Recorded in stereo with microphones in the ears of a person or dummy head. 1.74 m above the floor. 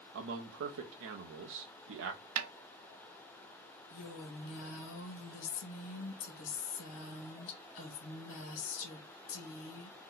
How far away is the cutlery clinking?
No cutlery clinking in this recording.